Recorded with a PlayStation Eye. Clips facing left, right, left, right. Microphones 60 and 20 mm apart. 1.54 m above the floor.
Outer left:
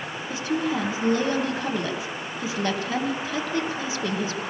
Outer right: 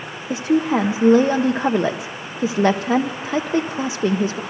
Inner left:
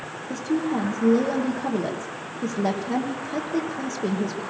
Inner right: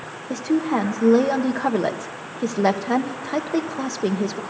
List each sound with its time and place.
0.3 s a woman speaking: 65° right (ahead or behind), 1.1 m